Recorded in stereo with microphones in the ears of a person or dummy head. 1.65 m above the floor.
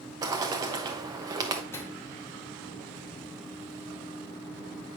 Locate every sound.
0.2 s a bird: 20° right (ahead or behind), 0.9 m
1.7 s a microwave: 15° left (ahead or behind), 1.3 m